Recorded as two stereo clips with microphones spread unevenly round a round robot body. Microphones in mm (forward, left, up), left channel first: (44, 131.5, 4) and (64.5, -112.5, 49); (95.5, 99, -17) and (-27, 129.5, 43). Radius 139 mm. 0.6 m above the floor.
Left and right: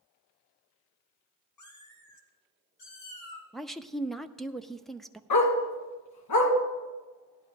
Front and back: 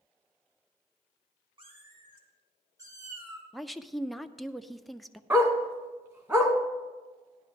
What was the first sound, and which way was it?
A cat meowing, 120° left.